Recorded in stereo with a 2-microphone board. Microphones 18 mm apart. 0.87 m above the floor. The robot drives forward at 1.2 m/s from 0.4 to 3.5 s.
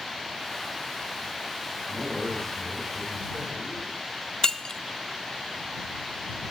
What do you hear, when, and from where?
1.9 s a man speaking: 70° right (ahead or behind), 5 m; by 3.9 s 80° right, 5 m
4.4 s breaking glass: 35° left (ahead or behind), 0.6 m